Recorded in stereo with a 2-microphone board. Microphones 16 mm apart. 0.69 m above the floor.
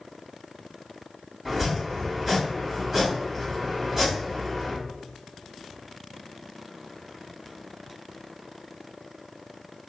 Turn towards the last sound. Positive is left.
turn(degrees=-20)  # may be behind; listen again after turning